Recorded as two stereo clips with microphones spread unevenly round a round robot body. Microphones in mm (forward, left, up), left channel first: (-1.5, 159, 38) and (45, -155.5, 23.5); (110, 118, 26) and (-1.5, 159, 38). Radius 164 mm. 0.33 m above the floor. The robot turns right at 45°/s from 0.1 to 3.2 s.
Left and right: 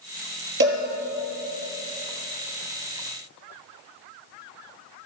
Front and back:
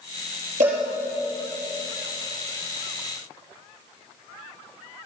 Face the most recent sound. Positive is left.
turn(degrees=-25)